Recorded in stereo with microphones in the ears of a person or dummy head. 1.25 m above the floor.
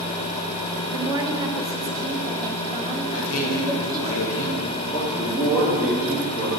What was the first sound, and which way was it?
A woman speaking, 20° right (ahead or behind).